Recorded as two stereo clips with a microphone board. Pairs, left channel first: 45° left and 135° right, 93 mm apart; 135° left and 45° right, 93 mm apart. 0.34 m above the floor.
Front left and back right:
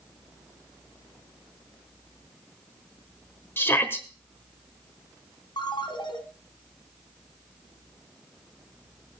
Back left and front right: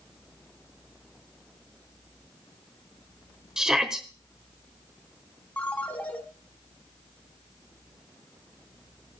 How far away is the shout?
About 1.0 m.